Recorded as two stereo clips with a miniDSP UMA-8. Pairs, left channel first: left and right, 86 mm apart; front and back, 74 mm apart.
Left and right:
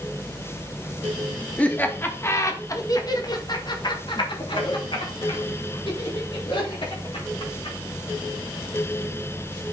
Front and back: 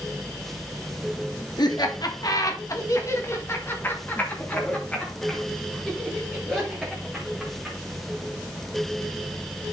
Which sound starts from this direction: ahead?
Laughter, at 1.6 s.